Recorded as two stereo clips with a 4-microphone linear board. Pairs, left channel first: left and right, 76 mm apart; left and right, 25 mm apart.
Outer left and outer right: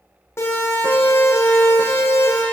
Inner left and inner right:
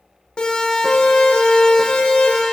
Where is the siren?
35° left (ahead or behind), 6 m; by 2.4 s 40° left (ahead or behind), 5 m.